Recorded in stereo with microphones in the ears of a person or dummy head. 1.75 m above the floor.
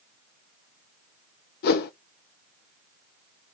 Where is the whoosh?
60° left (ahead or behind), 1.1 m.